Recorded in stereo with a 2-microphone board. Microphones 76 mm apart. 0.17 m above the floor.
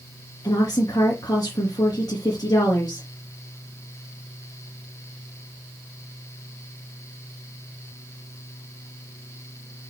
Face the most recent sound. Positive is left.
turn(degrees=55)  # may be behind; listen again after turning